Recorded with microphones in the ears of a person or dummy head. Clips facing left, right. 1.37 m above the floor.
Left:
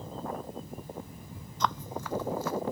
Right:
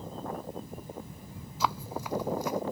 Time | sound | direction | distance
1.6 | running footsteps | 5° right (ahead or behind) | ?